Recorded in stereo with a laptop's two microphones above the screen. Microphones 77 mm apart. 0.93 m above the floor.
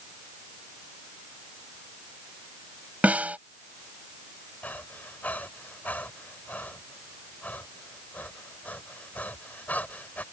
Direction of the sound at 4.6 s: 25° left (ahead or behind).